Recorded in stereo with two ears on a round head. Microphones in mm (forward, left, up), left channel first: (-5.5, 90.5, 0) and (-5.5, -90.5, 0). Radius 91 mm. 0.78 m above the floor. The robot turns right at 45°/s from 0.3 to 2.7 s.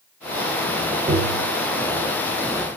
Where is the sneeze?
I don't hear a sneeze.